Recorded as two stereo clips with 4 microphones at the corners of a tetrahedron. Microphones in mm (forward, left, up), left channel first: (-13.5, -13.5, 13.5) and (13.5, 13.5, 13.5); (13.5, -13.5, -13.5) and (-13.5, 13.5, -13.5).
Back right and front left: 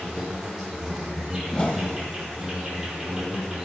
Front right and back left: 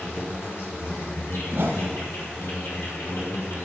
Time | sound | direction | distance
0.0 | an insect | 35° right | 5 m
1.5 | a whoosh | 165° left | 3 m